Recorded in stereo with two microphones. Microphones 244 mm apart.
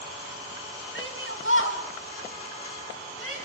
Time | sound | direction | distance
0.9 | a shout | 55° left (ahead or behind) | 4 m